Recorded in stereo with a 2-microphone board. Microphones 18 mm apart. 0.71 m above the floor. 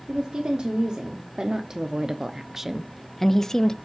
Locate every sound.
0.1 s a woman speaking: 65° right (ahead or behind), 1.6 m; by 3.7 s 35° left (ahead or behind), 0.7 m